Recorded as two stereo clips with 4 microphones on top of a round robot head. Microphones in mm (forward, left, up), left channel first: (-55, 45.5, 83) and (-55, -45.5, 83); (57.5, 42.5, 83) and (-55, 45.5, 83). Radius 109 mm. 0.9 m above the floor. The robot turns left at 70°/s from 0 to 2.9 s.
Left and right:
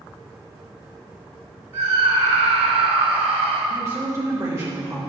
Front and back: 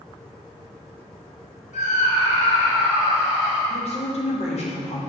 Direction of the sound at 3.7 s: 30° right.